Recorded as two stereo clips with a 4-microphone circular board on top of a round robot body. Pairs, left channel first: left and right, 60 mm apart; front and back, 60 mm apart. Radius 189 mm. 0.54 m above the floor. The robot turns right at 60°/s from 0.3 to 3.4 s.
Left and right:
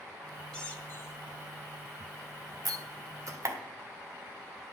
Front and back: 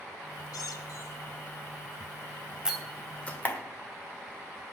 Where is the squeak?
10° left, 1.2 m; by 1.2 s 50° left, 1.2 m.